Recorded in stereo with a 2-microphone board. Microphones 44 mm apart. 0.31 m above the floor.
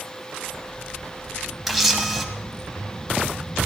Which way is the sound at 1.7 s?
5° right (ahead or behind).